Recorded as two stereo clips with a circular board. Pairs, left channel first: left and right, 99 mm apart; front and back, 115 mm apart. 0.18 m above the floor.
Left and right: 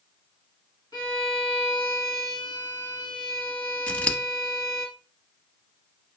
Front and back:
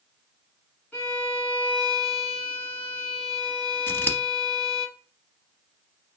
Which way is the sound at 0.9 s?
70° left.